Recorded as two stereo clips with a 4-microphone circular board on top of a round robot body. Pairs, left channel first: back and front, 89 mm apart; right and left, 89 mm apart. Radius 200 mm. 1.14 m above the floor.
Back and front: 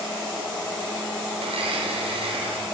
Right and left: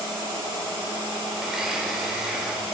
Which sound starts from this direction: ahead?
A blender, at 1.4 s.